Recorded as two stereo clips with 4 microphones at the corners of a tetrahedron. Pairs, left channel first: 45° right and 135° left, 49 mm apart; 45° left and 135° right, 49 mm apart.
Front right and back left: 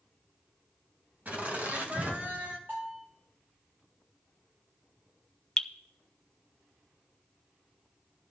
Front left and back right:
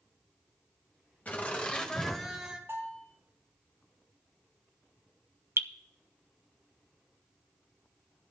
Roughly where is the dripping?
Behind right.